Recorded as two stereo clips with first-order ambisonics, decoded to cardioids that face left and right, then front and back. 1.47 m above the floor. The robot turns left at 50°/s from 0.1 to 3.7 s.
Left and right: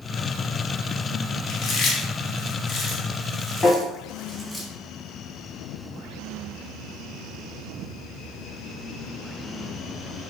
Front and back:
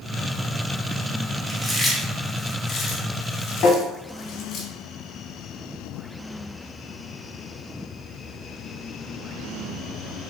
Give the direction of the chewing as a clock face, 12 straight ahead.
8 o'clock.